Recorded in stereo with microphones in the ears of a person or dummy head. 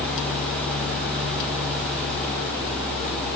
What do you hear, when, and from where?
0.0 s a fan: 10° left (ahead or behind), 9.5 m